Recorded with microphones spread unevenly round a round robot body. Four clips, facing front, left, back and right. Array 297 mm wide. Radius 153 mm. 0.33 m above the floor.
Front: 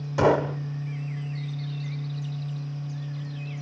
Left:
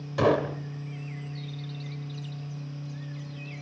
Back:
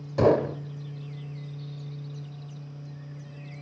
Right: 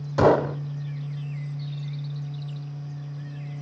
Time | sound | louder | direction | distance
0.2 | a gunshot | right 5 dB, even | 125° right | 0.7 m